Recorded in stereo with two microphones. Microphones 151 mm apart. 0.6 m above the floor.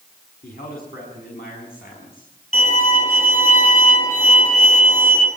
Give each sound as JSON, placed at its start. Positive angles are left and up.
{"t": 0.4, "sound": "a man speaking", "side_deg": 75, "distance_m": 5.5}
{"t": 2.5, "sound": "a violin", "side_deg": 60, "distance_m": 6.5}